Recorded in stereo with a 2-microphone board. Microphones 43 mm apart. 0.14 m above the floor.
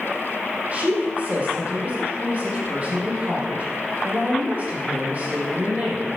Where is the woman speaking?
35° right (ahead or behind), 5.5 m.